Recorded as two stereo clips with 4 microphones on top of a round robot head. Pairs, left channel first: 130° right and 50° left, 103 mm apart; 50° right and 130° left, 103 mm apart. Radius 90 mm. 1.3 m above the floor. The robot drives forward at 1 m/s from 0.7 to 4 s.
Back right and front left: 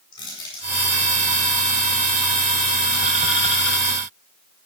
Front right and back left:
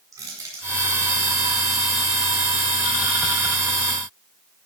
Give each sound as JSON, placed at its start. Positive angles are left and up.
{"t": 0.1, "sound": "crushing", "azimuth_deg": -175, "distance_m": 8.0}